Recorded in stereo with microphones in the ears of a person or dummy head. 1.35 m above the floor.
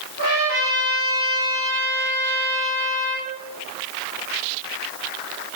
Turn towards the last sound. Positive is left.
turn(degrees=30)  # may be behind; listen again after turning